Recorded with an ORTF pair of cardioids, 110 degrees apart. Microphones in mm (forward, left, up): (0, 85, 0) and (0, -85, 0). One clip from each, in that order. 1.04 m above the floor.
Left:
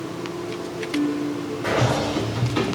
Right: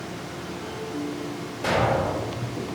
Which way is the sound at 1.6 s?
30° right.